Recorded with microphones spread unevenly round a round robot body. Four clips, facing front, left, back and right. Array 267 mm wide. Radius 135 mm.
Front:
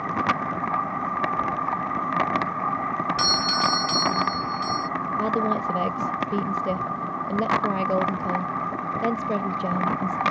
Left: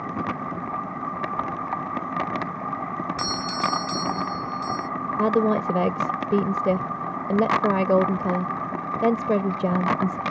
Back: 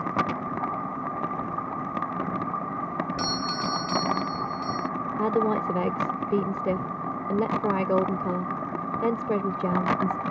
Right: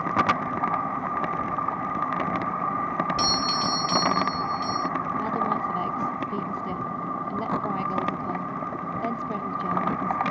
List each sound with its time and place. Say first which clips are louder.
3.2 s a doorbell: right 1 dB, front 5 dB; 35° right
5.2 s a woman speaking: left 9 dB, back 1 dB; 105° left